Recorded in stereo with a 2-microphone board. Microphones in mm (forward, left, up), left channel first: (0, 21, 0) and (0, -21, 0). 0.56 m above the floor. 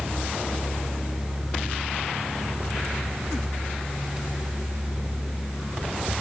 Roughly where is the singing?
No singing in this recording.